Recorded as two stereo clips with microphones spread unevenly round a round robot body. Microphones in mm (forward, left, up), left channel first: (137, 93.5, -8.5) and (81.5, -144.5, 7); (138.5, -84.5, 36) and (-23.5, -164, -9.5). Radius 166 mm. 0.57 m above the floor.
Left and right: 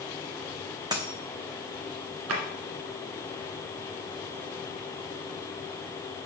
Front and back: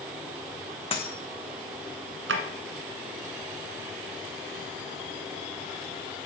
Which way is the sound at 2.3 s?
150° right.